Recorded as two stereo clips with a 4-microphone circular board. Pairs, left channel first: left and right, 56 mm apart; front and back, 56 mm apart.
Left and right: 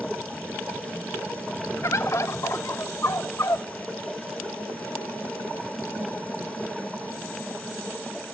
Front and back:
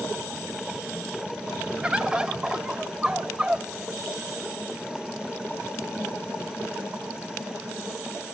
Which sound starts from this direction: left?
A bird, at 1.8 s.